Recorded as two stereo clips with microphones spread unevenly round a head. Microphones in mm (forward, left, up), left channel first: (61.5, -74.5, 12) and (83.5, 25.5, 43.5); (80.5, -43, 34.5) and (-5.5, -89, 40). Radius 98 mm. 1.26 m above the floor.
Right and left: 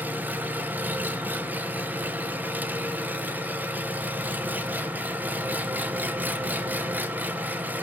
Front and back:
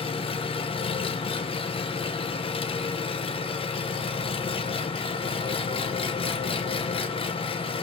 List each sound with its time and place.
0.0 s an engine running: straight ahead, 0.9 m